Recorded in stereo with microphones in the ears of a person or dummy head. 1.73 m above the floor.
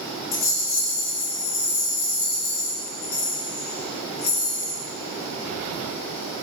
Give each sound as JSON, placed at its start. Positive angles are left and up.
{"t": 0.3, "sound": "a rattle", "side_deg": 35, "distance_m": 1.2}